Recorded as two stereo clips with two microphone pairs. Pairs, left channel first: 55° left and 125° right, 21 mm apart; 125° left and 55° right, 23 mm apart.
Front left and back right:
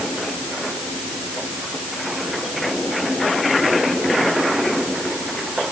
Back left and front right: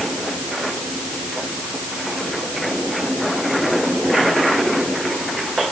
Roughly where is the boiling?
No boiling in this recording.